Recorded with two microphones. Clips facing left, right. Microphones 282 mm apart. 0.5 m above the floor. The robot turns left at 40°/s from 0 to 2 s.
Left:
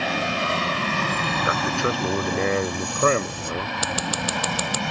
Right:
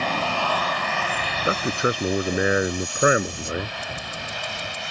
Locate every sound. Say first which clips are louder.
0.0 s an aircraft: left 1 dB; 5° left (ahead or behind); by 4.9 s 65° left (ahead or behind)
1.4 s a man speaking: right 3 dB; 30° right (ahead or behind); by 3.7 s 10° right (ahead or behind)
3.8 s scissors: left 8 dB; 85° left